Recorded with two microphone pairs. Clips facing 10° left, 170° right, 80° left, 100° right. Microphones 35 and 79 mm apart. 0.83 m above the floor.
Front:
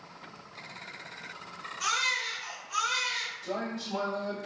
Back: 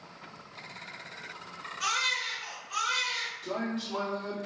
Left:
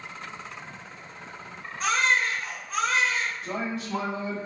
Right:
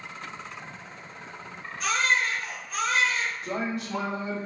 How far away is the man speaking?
About 1.8 m.